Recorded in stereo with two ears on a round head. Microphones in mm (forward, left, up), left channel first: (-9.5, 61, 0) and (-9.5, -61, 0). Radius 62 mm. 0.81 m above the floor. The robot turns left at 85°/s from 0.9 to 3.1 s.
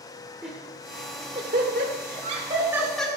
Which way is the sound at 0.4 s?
5° right (ahead or behind).